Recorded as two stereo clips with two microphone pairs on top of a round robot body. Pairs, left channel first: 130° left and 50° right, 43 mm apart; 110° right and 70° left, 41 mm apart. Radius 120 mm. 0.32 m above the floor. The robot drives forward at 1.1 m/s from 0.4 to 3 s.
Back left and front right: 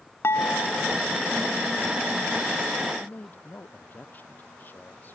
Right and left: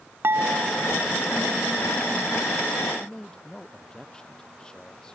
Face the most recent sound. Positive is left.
turn(degrees=180)